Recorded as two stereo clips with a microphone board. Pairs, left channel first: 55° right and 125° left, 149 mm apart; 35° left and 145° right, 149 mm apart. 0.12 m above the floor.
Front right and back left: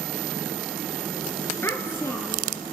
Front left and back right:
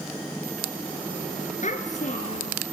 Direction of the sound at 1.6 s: 15° left.